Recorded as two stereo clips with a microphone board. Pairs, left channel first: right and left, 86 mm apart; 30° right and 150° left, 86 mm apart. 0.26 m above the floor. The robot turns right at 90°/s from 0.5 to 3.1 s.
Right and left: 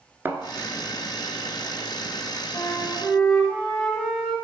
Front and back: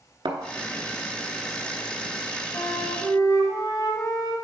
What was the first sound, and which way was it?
A thud, 155° left.